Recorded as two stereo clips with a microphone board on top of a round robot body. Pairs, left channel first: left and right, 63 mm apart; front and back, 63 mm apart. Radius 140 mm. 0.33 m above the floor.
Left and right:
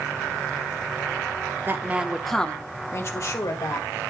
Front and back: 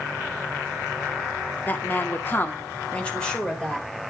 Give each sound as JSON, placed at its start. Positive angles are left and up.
{"t": 1.7, "sound": "a woman speaking", "azimuth_deg": -50, "distance_m": 1.3}